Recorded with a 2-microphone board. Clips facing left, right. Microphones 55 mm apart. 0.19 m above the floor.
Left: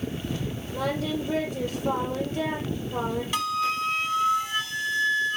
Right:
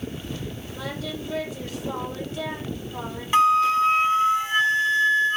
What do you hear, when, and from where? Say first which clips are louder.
0.7 s singing: left 6 dB; 45° left (ahead or behind), 4.5 m
3.3 s a flute: right 12 dB; 30° right (ahead or behind), 0.8 m